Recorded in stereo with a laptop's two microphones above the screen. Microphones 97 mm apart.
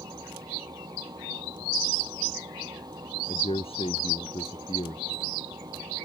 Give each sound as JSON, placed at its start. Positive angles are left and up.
{"t": 0.0, "sound": "a machine running", "side_deg": -45}
{"t": 3.3, "sound": "a man speaking", "side_deg": 85}